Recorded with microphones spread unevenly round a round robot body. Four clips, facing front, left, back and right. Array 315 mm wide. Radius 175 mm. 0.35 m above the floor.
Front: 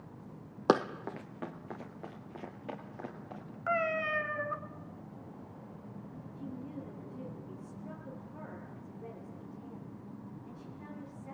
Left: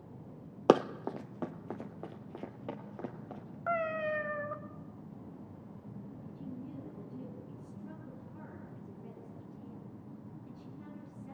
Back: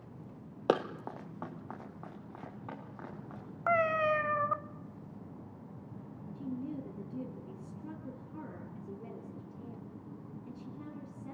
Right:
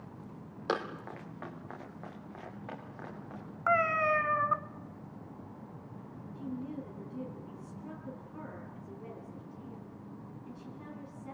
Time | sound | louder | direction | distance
0.7 | running footsteps | left 9 dB, front 2 dB | 75° left | 0.8 m
3.7 | a cat meowing | right 5 dB, back 4 dB | 130° right | 0.8 m
6.3 | a woman speaking | right 6 dB, back 4 dB | straight behind | 5 m